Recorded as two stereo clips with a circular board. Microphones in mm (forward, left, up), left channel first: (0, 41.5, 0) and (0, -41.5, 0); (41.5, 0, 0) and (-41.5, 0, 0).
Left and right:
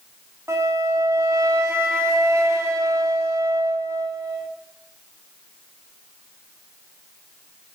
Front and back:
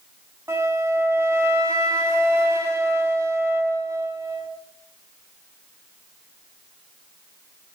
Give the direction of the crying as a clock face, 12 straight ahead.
No crying in this recording.